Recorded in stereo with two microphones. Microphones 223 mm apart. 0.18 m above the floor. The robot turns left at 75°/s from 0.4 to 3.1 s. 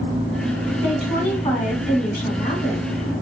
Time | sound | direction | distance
0.8 | a woman speaking | 165° right | 1.5 m